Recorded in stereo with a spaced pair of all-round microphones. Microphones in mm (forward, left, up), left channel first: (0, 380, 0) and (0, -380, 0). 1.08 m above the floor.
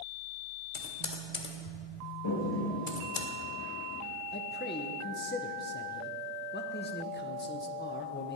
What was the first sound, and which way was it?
Typing on a keyboard, 60° left (ahead or behind).